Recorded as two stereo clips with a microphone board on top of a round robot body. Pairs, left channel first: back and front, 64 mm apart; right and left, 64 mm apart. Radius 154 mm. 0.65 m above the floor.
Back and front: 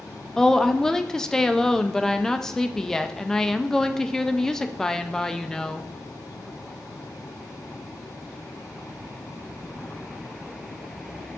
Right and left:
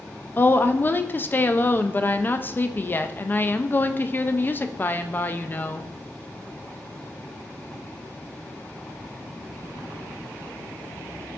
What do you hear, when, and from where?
0.4 s a woman speaking: 105° right, 0.5 m